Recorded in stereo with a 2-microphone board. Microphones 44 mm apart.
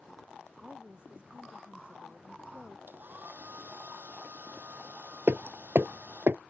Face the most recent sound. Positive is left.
turn(degrees=-55)  # may be behind; listen again after turning